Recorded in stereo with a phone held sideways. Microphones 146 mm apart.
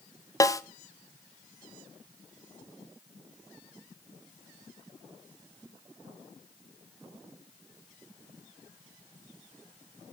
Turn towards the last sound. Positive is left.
turn(degrees=20)  # may be behind; listen again after turning